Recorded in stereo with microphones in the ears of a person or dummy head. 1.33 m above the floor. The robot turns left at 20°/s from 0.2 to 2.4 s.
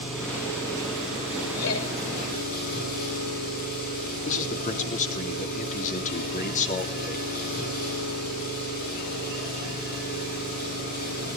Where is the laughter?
85° left, 6 m; by 1.9 s 90° left, 6 m.